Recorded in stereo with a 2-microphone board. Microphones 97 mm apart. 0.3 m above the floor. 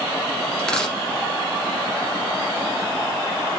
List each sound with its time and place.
0.6 s a dropped coin: 5° left (ahead or behind), 2 m